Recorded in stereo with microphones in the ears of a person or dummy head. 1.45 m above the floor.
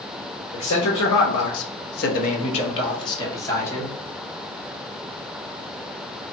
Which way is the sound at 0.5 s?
60° left (ahead or behind).